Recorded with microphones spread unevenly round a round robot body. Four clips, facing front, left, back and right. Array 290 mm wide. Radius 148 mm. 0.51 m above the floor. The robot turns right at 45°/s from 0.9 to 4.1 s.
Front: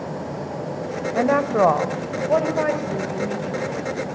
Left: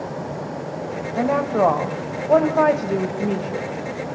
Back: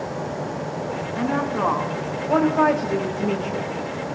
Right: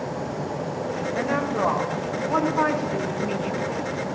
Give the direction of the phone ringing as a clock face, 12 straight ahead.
I don't hear a phone ringing.